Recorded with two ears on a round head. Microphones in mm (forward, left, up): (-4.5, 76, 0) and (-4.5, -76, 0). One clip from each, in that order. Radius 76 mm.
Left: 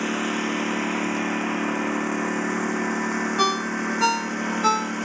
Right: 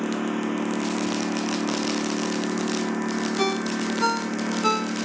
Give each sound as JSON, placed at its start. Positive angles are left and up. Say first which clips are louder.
{"t": 0.0, "sound": "a lawn mower", "louder": "left 2 dB", "side_deg": 55}
{"t": 3.4, "sound": "a ringtone", "louder": "left 3 dB", "side_deg": 40}